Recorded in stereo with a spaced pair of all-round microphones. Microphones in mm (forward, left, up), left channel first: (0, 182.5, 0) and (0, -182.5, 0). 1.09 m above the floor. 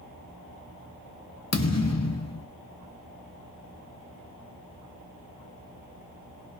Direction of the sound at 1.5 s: 45° left (ahead or behind).